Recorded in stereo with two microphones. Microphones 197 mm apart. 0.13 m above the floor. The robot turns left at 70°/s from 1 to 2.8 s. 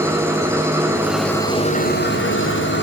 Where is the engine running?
165° right, 5.5 m; by 2.8 s 70° left, 5.5 m.